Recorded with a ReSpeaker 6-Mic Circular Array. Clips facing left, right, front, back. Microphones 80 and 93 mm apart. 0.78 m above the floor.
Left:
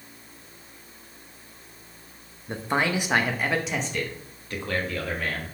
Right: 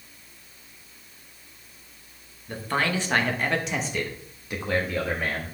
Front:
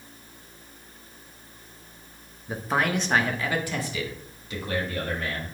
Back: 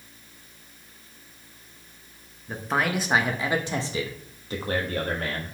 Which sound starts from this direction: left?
A man speaking, at 2.5 s.